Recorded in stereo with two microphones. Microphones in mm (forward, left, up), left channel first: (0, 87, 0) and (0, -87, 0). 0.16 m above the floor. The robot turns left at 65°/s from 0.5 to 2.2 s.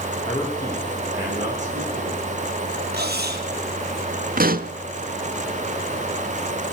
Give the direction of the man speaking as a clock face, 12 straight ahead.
11 o'clock.